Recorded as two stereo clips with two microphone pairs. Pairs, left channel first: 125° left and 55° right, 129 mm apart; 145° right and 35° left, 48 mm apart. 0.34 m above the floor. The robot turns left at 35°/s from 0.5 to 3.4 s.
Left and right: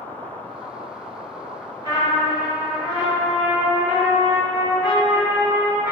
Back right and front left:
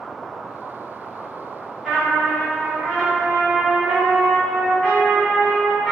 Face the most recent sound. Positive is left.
turn(degrees=-95)